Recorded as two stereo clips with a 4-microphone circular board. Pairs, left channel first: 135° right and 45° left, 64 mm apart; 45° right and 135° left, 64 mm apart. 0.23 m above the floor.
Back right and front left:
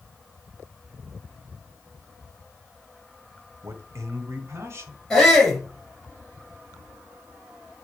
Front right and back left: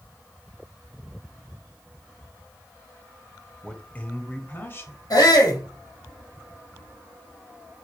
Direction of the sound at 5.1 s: 50° right.